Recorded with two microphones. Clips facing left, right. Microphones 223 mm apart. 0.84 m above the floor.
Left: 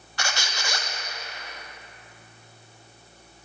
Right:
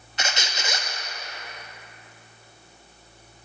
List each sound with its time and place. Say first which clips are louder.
0.2 s a squeak: right 1 dB; 25° right (ahead or behind), 0.5 m